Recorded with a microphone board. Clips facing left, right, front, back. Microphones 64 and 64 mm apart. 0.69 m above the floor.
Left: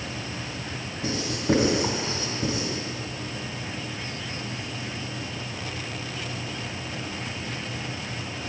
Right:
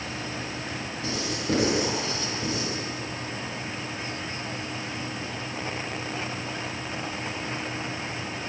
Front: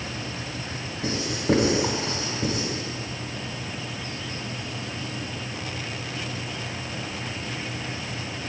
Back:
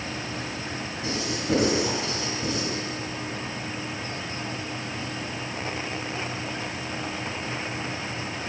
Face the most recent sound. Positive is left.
turn(degrees=30)